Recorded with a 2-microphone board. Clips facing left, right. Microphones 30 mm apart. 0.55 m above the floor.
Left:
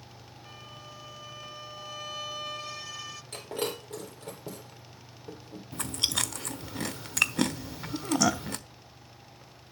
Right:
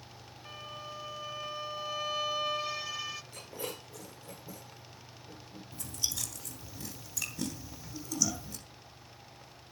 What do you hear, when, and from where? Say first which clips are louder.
0.5 s a violin: right 4 dB; 15° right (ahead or behind), 1.0 m
3.3 s breaking glass: left 8 dB; 85° left, 7.5 m
5.7 s chewing: left 8 dB; 60° left (ahead or behind), 1.1 m